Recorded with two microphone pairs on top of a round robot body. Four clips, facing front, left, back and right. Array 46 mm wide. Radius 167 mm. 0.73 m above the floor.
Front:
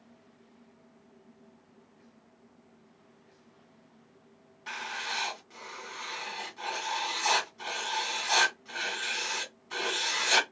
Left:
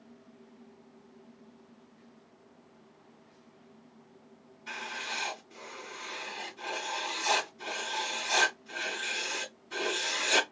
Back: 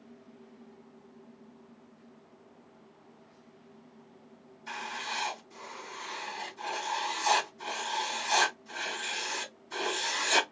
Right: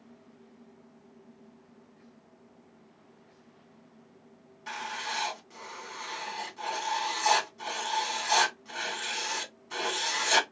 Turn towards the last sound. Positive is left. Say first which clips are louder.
# right 2 dB, front 1 dB
turn(degrees=-35)